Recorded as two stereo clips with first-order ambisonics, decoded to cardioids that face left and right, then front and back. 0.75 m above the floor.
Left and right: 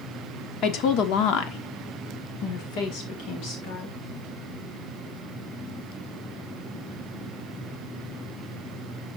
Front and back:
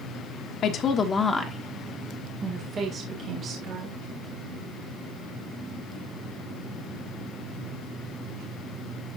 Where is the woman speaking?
50° left, 1.4 m; by 4.0 s 130° left, 3 m.